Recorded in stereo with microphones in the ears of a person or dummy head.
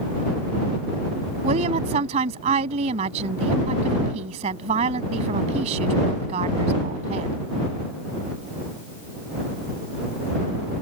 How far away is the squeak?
No squeak in this recording.